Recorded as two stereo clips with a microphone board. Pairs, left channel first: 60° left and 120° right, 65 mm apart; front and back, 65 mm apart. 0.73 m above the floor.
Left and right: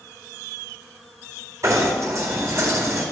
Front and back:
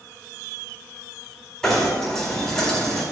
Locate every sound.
1.6 s knocking: 80° right, 4 m